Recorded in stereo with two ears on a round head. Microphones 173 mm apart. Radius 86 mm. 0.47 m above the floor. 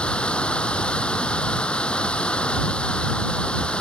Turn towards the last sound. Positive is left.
turn(degrees=5)  # may be behind; listen again after turning